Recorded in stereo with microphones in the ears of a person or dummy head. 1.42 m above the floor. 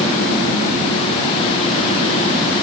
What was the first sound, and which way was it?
Only background noise.